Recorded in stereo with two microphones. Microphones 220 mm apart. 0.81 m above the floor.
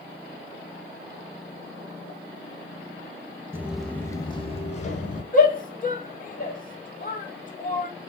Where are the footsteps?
10° right (ahead or behind), 0.8 m; by 5.2 s 40° left (ahead or behind), 1.4 m.